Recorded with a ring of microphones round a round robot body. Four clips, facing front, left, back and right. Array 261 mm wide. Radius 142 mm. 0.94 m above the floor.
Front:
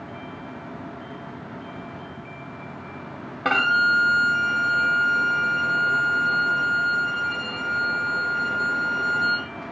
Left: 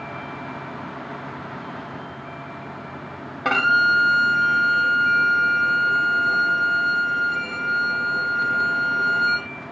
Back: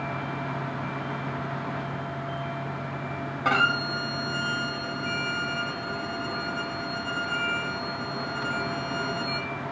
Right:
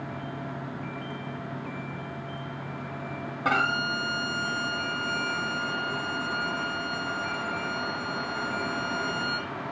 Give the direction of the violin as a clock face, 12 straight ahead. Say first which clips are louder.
Left 8 dB, front 5 dB; 11 o'clock.